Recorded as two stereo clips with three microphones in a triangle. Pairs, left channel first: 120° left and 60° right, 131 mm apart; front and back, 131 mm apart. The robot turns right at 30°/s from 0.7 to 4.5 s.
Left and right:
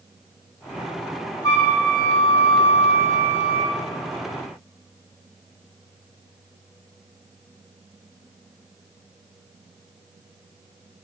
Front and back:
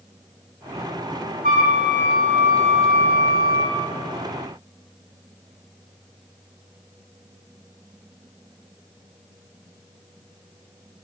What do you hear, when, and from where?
1.4 s a flute: 175° right, 7.5 m; by 3.8 s 105° right, 7.5 m